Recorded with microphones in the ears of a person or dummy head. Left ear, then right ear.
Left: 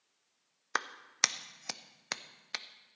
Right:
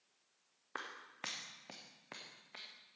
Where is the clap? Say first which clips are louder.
Left 15 dB; 65° left (ahead or behind), 0.6 m.